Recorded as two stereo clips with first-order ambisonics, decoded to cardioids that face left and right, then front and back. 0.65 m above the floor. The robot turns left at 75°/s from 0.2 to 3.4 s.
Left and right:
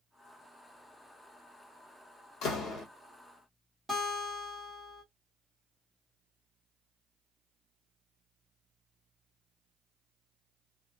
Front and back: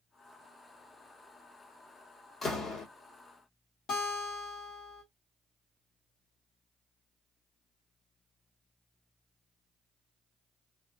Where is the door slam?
75° left, 1.0 m; by 2.9 s 40° left, 1.0 m.